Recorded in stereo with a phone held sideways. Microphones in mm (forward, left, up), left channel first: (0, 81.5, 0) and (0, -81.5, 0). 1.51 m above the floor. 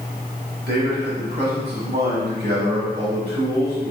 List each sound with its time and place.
0.7 s a man speaking: 70° right (ahead or behind), 1.4 m